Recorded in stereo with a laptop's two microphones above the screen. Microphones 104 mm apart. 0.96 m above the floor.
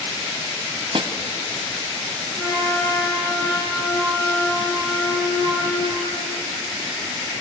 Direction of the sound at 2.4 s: 30° left (ahead or behind).